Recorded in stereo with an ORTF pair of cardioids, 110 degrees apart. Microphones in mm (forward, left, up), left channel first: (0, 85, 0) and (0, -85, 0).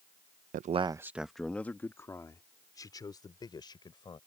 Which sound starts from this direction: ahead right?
A man speaking, at 0.5 s.